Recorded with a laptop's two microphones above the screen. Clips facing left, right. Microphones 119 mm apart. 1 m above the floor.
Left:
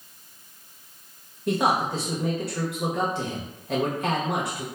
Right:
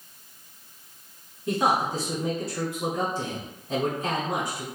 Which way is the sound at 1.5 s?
65° left (ahead or behind).